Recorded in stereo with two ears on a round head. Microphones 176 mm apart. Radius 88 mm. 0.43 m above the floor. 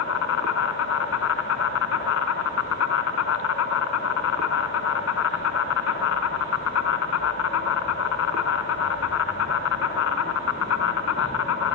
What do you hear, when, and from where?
0.0 s an insect: 75° left (ahead or behind), 1.5 m